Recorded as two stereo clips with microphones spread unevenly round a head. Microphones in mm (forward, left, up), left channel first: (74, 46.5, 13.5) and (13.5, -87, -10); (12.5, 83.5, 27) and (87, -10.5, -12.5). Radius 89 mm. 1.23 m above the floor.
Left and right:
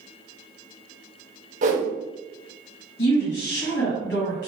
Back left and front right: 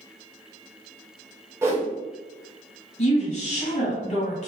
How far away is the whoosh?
About 0.8 m.